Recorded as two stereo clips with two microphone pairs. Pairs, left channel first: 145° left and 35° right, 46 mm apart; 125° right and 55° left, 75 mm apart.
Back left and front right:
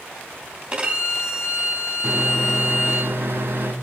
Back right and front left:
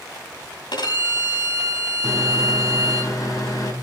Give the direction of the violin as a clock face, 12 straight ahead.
4 o'clock.